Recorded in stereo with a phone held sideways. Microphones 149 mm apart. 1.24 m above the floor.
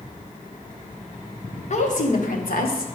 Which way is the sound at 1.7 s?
50° left (ahead or behind).